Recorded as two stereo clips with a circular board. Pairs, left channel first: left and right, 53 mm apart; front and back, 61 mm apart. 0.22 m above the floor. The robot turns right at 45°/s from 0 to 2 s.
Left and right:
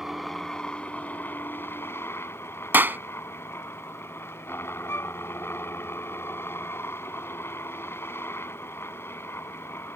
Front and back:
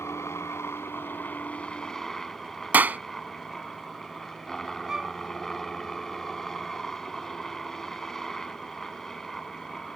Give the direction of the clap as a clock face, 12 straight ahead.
4 o'clock.